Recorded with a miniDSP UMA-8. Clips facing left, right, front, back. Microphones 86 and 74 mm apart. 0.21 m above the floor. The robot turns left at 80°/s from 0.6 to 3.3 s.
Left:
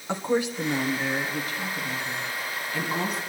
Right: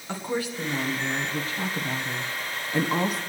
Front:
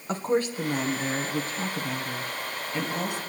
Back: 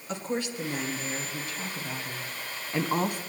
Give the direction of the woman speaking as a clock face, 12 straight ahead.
11 o'clock.